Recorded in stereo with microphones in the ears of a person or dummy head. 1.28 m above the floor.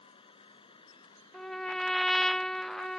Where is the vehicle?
30° left (ahead or behind); by 3.0 s 20° left (ahead or behind).